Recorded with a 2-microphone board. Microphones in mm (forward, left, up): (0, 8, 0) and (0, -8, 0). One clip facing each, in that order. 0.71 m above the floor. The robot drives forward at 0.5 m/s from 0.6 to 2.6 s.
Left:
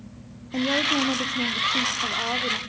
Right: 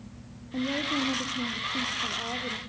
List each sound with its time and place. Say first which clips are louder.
0.5 s a woman speaking: left 6 dB; 60° left (ahead or behind), 1.1 m; by 2.6 s 50° left (ahead or behind), 1.2 m